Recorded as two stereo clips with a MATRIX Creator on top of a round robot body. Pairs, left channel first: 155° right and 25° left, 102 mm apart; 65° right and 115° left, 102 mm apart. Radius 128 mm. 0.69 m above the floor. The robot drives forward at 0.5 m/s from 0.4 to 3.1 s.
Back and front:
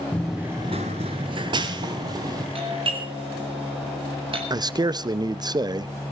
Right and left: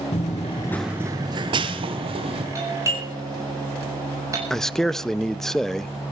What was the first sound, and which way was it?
Running footsteps, 80° right.